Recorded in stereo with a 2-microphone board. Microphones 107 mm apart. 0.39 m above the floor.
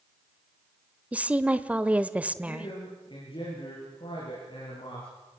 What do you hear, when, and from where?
1.1 s a woman speaking: 15° right (ahead or behind), 1.0 m
2.5 s a man speaking: 50° left (ahead or behind), 7.5 m